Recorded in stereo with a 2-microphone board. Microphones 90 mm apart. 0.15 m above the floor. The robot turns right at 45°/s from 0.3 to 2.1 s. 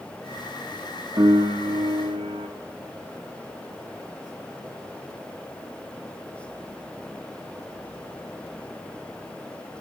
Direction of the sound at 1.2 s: 130° right.